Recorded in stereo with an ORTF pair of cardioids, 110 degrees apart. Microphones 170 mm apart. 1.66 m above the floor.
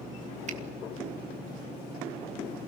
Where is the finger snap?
45° right, 2.0 m.